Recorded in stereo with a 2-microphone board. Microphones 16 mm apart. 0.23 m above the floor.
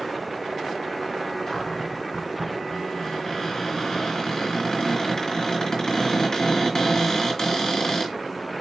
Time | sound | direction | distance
1.5 | a cupboard door | 35° left (ahead or behind) | 1.9 m